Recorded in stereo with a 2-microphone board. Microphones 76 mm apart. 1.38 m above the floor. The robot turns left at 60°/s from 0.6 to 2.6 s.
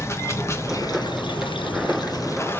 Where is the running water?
145° left, 1.3 m; by 2.6 s 25° left, 1.3 m.